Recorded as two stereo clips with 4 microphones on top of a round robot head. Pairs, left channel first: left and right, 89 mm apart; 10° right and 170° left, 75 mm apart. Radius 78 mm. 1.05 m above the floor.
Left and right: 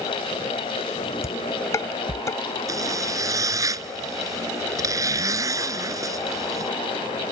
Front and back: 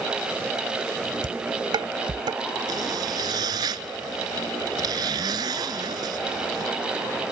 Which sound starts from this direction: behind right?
A zipper, at 2.7 s.